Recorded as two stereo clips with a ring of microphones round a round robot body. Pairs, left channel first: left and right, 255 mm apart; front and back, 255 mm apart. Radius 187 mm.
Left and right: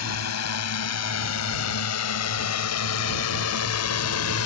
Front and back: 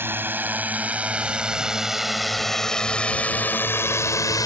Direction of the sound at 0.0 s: 100° left.